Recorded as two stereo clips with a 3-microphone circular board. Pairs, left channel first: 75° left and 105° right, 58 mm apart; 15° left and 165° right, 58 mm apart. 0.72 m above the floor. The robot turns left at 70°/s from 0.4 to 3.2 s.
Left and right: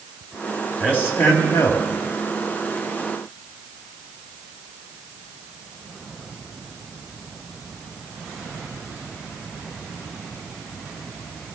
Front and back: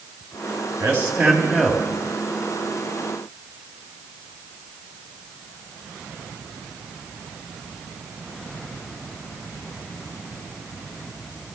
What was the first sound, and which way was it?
A man speaking, 145° left.